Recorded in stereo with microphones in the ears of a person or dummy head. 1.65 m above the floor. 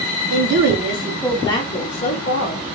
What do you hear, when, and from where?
0.3 s a woman speaking: 60° right (ahead or behind), 0.7 m; by 2.8 s 55° left (ahead or behind), 1.6 m